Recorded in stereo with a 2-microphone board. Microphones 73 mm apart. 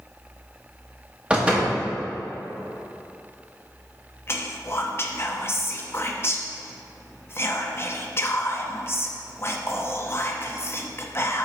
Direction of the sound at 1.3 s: 15° right (ahead or behind).